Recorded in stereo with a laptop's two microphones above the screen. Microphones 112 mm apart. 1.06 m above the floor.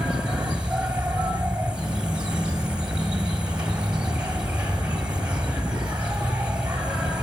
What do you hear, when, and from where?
0.0 s an insect: 10° right (ahead or behind), 1.7 m